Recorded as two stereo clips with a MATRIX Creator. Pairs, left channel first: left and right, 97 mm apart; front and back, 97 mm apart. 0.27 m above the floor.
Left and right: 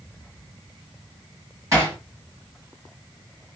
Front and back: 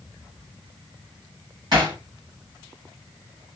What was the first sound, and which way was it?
Hammering, 140° right.